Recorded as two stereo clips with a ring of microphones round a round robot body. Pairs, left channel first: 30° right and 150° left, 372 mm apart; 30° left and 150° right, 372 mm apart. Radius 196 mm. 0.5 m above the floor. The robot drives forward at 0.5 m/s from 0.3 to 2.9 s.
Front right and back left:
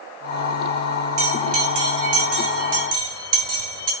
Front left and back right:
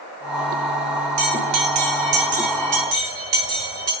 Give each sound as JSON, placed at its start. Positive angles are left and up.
{"t": 1.2, "sound": "a bell", "azimuth_deg": -165, "distance_m": 3.0}